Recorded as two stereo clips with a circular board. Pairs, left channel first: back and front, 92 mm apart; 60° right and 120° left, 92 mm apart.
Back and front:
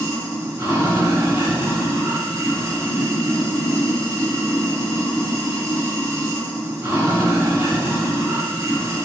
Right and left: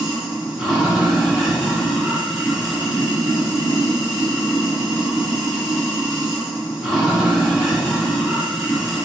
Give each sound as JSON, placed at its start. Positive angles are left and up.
{"t": 0.0, "sound": "running water", "azimuth_deg": 40, "distance_m": 1.3}